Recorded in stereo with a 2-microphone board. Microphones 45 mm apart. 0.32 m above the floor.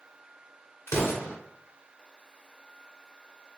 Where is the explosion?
75° left (ahead or behind), 1.5 m.